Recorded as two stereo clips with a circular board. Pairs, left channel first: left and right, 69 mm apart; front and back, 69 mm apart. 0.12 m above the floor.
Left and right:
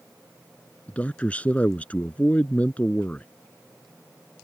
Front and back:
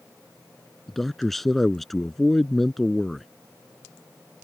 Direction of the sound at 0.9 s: 80° left.